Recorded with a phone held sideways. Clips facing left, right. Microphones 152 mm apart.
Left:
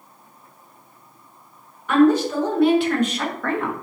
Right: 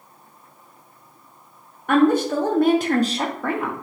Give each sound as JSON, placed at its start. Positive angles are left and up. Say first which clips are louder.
{"t": 1.9, "sound": "a woman speaking", "louder": "left 1 dB", "side_deg": -55, "distance_m": 1.1}